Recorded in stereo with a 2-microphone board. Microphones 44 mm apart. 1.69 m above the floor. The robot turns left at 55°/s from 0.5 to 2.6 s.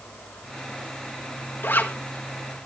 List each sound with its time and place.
1.6 s a zipper: 50° left (ahead or behind), 1.3 m; by 1.9 s 45° left (ahead or behind), 1.3 m